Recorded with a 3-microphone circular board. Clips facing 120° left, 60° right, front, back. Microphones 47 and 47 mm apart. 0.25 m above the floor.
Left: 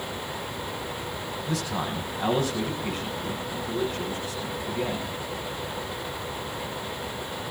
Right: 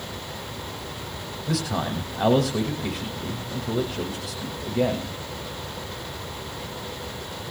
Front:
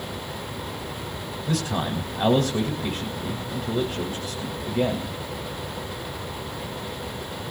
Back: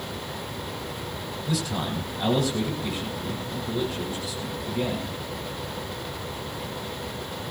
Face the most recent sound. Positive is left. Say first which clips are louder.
# right 4 dB, front 3 dB
turn(degrees=-45)